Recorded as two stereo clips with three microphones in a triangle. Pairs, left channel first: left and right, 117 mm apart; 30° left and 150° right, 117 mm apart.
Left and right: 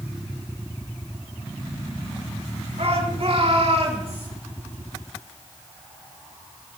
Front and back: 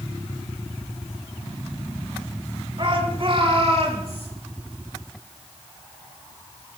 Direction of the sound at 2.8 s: 110° right.